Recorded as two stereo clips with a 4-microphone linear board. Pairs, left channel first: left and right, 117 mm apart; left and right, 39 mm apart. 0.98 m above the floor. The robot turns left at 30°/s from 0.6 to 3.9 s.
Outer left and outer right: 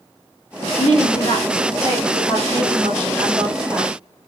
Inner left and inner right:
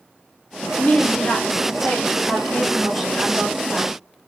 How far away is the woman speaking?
About 1.5 m.